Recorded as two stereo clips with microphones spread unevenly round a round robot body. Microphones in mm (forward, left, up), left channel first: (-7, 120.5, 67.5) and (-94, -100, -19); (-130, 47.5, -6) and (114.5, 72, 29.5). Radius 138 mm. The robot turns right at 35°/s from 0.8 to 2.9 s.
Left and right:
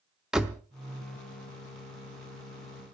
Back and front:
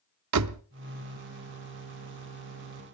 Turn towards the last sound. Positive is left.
turn(degrees=45)